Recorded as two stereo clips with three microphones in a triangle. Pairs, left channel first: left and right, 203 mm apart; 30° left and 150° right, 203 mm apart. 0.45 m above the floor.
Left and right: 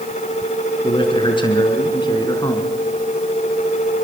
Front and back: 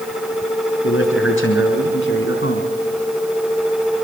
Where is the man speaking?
25° left, 5.5 m; by 2.7 s 20° left, 4 m.